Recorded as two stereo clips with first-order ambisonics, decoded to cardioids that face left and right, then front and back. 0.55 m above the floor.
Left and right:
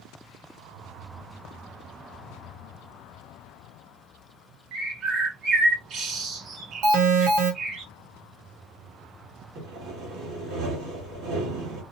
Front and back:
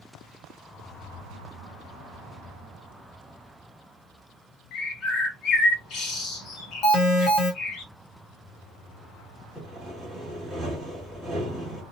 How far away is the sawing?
About 1.6 m.